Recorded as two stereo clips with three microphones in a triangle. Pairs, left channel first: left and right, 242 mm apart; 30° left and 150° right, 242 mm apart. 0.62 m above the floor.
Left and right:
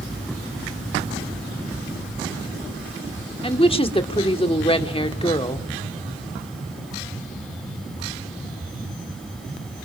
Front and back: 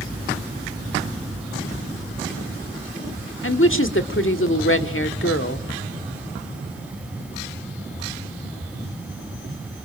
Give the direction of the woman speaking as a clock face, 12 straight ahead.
11 o'clock.